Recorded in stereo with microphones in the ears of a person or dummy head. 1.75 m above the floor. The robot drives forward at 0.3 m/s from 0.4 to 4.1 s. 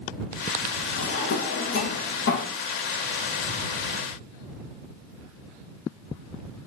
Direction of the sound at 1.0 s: 55° left (ahead or behind).